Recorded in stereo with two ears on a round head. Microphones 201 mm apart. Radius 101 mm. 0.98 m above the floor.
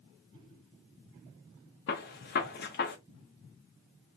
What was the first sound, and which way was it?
A gunshot, 45° left (ahead or behind).